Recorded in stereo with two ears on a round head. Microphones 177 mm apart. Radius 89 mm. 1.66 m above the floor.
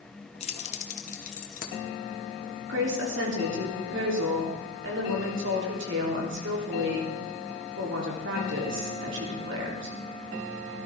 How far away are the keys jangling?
About 1.1 m.